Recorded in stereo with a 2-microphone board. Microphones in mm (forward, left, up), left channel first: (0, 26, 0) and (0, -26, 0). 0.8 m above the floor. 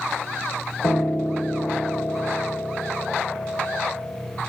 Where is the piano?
75° left (ahead or behind), 1.5 m.